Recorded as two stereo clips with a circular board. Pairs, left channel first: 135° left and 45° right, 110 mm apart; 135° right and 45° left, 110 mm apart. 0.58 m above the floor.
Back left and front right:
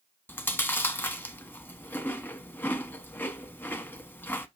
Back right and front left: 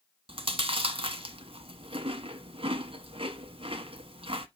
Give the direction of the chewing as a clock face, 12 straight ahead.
10 o'clock.